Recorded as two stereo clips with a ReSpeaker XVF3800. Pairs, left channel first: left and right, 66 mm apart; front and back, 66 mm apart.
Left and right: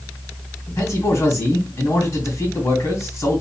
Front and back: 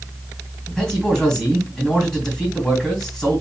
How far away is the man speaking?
About 2.5 m.